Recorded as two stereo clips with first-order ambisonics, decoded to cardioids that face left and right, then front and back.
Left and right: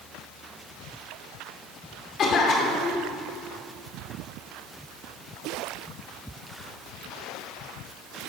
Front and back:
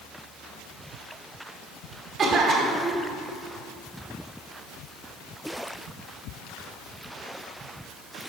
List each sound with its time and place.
2.2 s a cough: 130° left, 1.3 m